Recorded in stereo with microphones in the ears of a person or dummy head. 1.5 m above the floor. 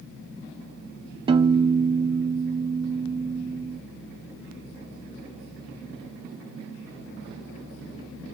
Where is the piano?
30° right (ahead or behind), 0.6 m.